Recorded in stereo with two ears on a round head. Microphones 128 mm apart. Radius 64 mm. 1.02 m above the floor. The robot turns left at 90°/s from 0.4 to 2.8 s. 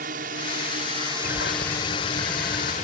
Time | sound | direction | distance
0.0 | a drone | 80° right | ?
1.2 | a bird | 110° left | ?